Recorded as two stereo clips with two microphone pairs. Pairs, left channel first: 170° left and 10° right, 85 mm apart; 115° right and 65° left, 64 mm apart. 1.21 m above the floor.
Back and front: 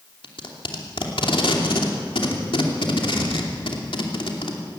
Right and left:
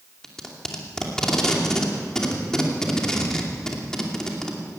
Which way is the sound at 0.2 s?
160° left.